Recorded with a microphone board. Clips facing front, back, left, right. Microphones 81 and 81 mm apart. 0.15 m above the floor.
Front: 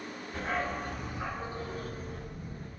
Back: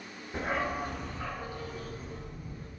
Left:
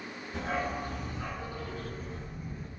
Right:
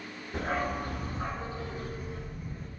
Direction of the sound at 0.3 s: 115° right.